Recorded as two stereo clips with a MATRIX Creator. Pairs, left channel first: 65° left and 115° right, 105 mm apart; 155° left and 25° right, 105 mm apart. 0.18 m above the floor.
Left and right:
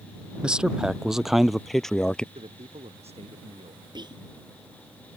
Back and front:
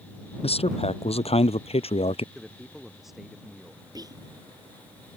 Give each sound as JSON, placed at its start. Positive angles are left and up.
{"t": 0.4, "sound": "a man speaking", "azimuth_deg": 165}
{"t": 2.4, "sound": "a man speaking", "azimuth_deg": -110}
{"t": 4.0, "sound": "whispering", "azimuth_deg": -70}